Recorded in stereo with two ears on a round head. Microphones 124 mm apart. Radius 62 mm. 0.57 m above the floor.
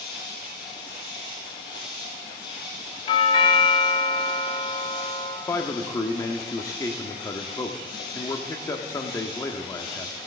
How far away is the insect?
About 4.5 m.